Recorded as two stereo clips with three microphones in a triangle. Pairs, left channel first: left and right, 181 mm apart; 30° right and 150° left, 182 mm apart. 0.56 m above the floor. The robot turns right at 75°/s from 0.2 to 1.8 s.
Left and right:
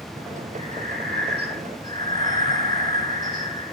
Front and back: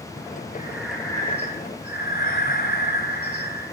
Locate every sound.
0.6 s breathing: 145° right, 2.5 m; by 3.7 s 50° right, 2.5 m